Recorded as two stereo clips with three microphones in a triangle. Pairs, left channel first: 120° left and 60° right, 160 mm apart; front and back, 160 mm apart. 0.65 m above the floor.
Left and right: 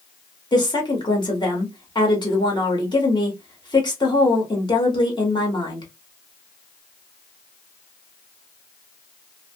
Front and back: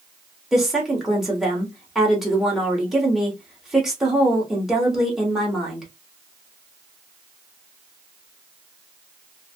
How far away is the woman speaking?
About 1.3 m.